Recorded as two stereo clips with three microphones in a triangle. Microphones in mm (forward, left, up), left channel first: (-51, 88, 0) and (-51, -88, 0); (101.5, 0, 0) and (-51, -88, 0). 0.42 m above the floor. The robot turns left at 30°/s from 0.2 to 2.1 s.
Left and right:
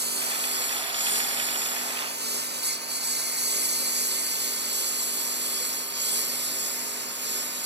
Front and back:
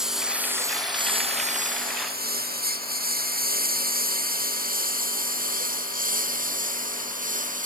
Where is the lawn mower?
65° right; by 7.7 s 105° right.